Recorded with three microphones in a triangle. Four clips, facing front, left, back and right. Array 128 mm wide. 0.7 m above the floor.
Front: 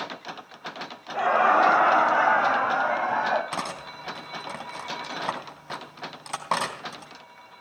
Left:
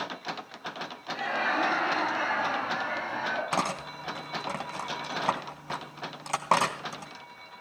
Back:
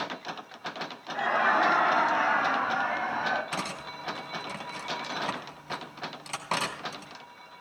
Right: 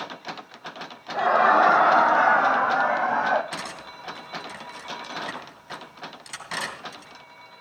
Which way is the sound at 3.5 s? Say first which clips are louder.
Left 6 dB, front 3 dB; 65° left.